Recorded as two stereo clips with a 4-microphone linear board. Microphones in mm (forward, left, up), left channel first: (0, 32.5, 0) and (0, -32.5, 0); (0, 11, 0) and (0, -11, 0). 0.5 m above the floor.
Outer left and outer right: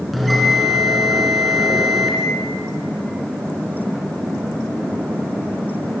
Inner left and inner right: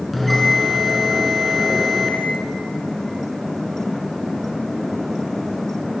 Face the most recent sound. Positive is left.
turn(degrees=0)  # may be behind; listen again after turning